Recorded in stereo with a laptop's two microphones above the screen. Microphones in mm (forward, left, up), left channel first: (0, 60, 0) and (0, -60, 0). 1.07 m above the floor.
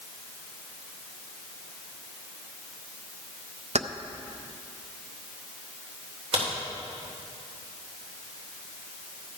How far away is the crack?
About 3 m.